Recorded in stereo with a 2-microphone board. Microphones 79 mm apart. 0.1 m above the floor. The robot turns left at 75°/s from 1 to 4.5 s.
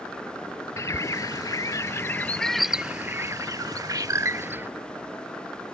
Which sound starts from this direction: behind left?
A bird, at 0.8 s.